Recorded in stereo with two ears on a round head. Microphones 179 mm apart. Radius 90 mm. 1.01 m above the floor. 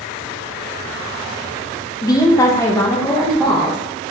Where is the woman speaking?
20° left (ahead or behind), 0.6 m; by 3.8 s 5° left (ahead or behind), 1.1 m.